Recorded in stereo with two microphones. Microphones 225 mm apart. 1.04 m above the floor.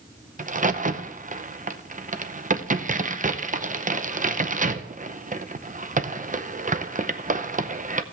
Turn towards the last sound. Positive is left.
turn(degrees=-35)  # may be behind; listen again after turning